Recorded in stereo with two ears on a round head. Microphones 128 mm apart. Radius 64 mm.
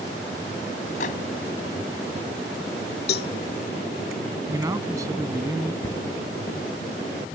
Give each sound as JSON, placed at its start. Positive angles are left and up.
{"t": 1.0, "sound": "a microwave", "side_deg": 60}
{"t": 3.1, "sound": "a cowbell", "side_deg": 80}
{"t": 4.5, "sound": "a man speaking", "side_deg": -25}
{"t": 5.8, "sound": "a cupboard door", "side_deg": 25}